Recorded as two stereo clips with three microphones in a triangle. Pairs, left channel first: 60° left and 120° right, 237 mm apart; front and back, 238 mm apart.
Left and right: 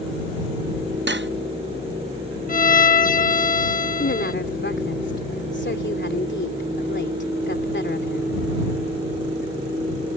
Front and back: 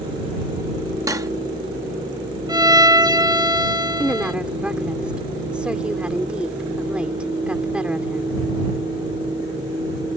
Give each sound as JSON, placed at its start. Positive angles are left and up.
{"t": 1.1, "sound": "cutlery clinking", "azimuth_deg": -110}
{"t": 2.5, "sound": "a violin", "azimuth_deg": 110}
{"t": 4.0, "sound": "a woman speaking", "azimuth_deg": 95}